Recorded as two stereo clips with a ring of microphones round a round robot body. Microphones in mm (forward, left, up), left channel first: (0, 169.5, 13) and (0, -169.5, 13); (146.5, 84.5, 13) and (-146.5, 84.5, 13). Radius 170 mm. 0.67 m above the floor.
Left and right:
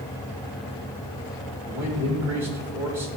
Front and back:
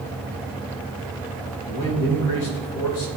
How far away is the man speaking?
About 2.5 m.